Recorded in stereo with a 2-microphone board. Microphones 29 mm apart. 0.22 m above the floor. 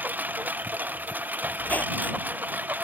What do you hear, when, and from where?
0.0 s a lawn mower: 85° right
1.6 s a squeak: 60° left (ahead or behind)